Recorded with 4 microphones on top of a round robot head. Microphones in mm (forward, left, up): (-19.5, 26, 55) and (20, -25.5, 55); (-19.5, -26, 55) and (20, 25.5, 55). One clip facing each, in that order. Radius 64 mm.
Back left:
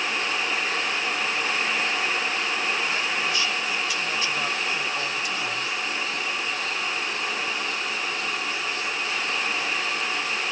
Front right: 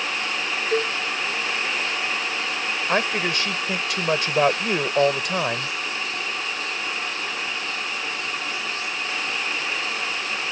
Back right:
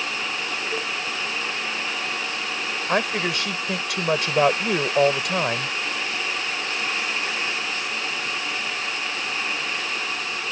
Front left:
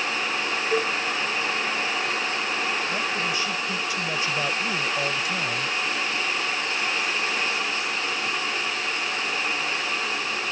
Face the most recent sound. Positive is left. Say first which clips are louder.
# front right 4 dB, back right 3 dB
turn(degrees=-95)